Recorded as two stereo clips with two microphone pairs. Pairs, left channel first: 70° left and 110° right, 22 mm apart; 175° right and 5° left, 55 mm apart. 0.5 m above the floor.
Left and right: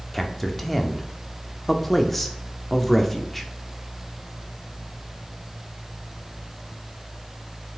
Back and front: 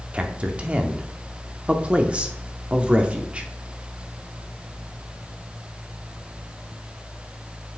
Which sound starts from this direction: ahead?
A man speaking, at 0.1 s.